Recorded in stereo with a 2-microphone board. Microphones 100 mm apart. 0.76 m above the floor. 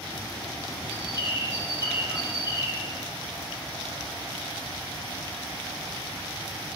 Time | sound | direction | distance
0.9 | a bird | 45° left (ahead or behind) | 1.8 m